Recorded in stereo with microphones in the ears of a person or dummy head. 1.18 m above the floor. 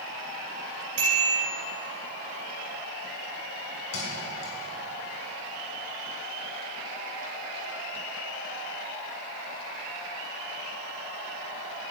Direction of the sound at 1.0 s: 40° right (ahead or behind).